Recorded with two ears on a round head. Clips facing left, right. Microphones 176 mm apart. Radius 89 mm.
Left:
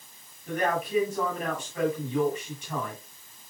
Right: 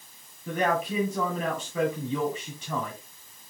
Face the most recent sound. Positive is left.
turn(degrees=-65)  # may be behind; listen again after turning